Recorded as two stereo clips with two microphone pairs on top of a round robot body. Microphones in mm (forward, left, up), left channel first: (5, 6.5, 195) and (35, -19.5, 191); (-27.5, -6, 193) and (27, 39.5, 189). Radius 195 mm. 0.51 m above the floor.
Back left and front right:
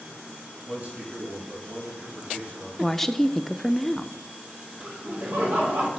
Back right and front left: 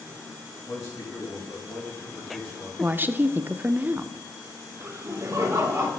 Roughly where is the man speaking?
Right.